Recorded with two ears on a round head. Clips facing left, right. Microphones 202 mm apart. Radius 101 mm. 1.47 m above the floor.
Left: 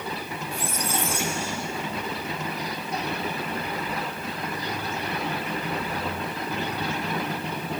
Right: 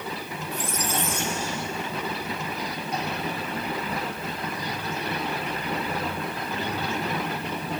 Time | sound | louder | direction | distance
0.5 | a squeak | right 1 dB | 10° left (ahead or behind) | 2 m